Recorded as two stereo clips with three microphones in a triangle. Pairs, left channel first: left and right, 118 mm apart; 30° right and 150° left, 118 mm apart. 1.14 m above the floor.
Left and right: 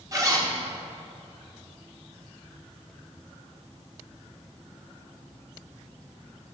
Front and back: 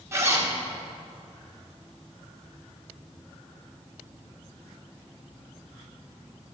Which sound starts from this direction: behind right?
A zipper, at 0.1 s.